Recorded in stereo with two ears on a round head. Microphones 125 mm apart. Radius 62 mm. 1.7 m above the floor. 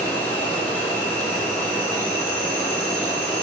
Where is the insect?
15° left (ahead or behind), 2 m.